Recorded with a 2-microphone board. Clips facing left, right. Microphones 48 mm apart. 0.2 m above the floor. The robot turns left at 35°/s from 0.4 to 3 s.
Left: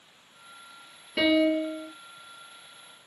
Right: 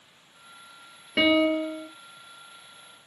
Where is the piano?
25° right (ahead or behind), 1.2 m; by 1.9 s 5° right (ahead or behind), 1.2 m.